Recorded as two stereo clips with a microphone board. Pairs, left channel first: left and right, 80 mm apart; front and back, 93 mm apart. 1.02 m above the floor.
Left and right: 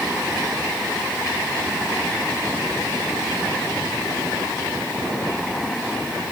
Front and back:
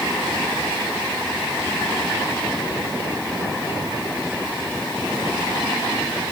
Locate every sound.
Only background noise.